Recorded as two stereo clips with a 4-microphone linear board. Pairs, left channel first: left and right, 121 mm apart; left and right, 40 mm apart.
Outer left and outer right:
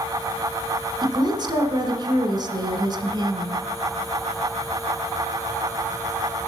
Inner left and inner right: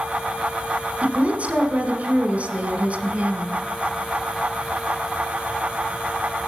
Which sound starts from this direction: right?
A woman speaking, at 1.0 s.